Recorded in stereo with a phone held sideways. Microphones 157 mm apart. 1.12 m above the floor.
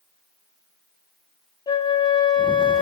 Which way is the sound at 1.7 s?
30° left (ahead or behind).